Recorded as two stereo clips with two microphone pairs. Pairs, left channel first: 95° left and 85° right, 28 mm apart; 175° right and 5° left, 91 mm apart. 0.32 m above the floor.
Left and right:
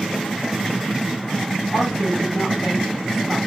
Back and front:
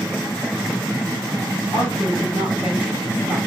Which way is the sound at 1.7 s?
170° left.